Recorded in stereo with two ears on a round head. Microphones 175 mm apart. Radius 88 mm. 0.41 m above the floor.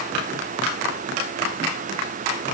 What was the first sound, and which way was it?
Only background noise.